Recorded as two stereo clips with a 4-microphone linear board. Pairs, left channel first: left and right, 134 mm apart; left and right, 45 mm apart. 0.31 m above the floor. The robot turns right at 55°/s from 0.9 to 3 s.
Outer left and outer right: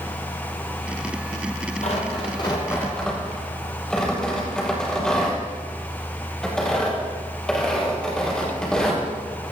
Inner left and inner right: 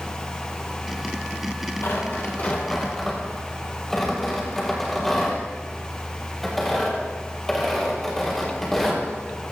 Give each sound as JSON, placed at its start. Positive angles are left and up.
{"t": 1.8, "sound": "tearing paper", "side_deg": 70, "distance_m": 7.0}